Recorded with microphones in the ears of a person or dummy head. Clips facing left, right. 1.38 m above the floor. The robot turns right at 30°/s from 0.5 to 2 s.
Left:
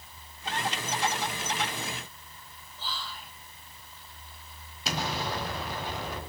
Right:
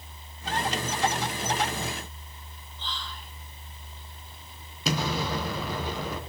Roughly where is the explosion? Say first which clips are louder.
Right 4 dB; right.